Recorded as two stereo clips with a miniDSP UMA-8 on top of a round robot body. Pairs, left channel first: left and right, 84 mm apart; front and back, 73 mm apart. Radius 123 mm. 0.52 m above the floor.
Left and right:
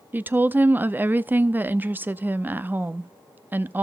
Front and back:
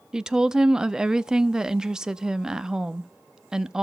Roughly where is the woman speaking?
Right.